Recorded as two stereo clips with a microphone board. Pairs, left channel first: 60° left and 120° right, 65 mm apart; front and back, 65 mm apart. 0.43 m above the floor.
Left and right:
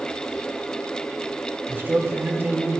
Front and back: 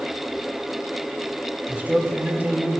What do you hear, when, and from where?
1.7 s a man speaking: 140° right, 1.2 m